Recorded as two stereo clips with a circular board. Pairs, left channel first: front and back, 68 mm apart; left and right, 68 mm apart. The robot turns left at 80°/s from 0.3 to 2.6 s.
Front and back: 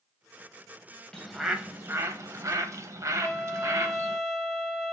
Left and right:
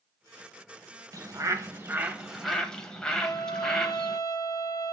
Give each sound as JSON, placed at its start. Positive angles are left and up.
{"t": 1.1, "sound": "a bird", "azimuth_deg": -75, "distance_m": 0.6}
{"t": 3.2, "sound": "a trumpet", "azimuth_deg": 85, "distance_m": 0.6}